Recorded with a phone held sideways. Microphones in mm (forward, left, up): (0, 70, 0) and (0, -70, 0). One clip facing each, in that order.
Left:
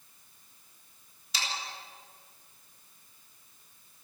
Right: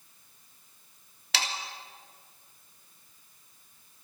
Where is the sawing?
75° right (ahead or behind), 3 m.